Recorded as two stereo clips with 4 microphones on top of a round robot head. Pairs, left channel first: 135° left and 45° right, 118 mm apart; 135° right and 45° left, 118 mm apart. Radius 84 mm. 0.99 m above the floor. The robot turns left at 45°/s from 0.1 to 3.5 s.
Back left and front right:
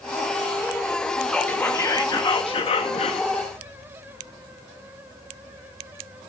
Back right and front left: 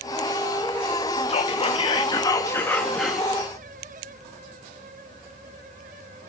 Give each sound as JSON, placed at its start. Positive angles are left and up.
{"t": 1.3, "sound": "whispering", "azimuth_deg": -140, "distance_m": 0.8}